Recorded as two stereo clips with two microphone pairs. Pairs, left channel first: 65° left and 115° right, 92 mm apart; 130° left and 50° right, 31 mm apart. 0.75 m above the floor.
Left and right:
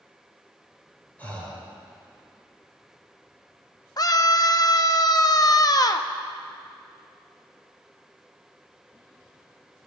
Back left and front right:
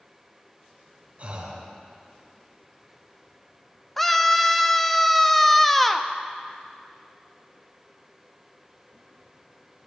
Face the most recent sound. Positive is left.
turn(degrees=45)